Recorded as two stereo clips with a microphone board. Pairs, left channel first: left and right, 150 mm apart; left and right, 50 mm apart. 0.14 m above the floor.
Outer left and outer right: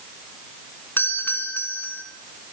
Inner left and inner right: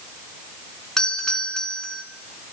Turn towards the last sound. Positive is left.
turn(degrees=15)  # may be behind; listen again after turning